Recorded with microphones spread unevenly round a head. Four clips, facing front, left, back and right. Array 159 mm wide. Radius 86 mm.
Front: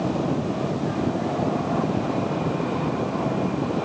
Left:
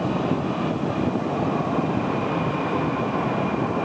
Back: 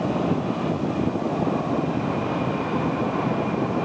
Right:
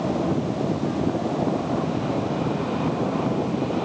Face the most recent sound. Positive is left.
No sound to turn to.